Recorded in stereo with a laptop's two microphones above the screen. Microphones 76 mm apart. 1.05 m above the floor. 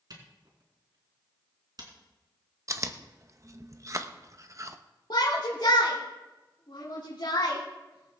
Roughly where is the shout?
Left.